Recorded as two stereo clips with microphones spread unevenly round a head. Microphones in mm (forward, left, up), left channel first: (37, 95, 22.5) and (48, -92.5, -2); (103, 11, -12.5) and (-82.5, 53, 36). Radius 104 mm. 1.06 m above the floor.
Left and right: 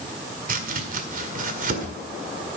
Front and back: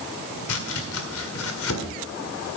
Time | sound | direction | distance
0.5 | chopping | 40° right | 1.8 m